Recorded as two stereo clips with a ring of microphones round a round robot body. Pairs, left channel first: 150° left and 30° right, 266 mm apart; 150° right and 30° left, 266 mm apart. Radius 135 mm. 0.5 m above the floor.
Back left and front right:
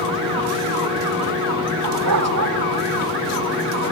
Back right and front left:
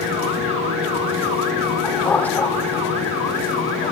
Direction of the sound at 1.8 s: 65° right.